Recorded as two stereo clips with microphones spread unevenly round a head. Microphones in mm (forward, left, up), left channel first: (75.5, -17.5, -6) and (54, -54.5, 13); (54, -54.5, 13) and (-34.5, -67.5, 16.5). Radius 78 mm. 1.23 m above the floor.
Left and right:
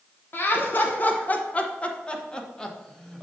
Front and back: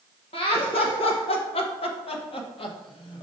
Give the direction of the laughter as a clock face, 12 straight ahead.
11 o'clock.